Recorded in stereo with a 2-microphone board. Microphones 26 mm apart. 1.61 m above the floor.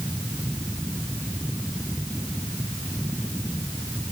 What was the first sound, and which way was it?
Only background noise.